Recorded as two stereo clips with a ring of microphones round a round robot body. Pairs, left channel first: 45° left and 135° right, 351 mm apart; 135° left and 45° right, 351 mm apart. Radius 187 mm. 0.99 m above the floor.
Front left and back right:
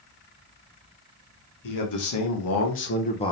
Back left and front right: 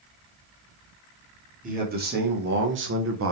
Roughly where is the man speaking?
Ahead.